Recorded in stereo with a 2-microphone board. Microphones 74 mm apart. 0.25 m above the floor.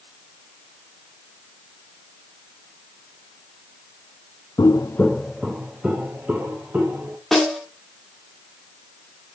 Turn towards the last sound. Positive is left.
turn(degrees=0)  # may be behind; listen again after turning